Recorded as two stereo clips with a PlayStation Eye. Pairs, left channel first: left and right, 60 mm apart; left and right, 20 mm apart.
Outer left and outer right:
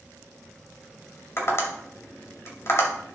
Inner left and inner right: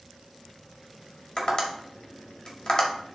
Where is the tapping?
45° left (ahead or behind), 2 m.